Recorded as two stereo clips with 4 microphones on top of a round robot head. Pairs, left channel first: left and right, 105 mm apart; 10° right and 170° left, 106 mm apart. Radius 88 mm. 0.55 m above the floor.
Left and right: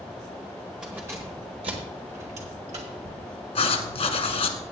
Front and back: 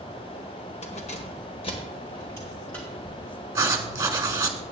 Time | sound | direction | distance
0.8 | keys jangling | 5° right | 1.5 m
3.5 | writing | 105° left | 1.5 m